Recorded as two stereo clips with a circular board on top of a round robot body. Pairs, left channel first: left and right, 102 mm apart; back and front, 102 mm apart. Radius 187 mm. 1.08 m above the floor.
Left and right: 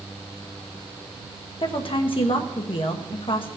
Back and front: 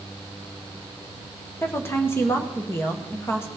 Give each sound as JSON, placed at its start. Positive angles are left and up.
{"t": 1.6, "sound": "a woman speaking", "azimuth_deg": 115, "distance_m": 1.5}